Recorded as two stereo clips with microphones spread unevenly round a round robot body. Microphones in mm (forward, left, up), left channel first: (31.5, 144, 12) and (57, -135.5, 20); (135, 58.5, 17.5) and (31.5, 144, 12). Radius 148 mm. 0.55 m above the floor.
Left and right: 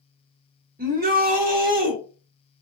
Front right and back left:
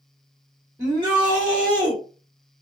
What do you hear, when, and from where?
0.8 s a shout: 140° right, 1.0 m